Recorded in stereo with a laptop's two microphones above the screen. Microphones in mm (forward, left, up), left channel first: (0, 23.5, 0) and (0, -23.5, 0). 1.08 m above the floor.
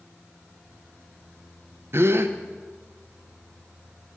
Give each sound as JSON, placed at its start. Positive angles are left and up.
{"t": 1.9, "sound": "a gasp", "side_deg": -55, "distance_m": 0.6}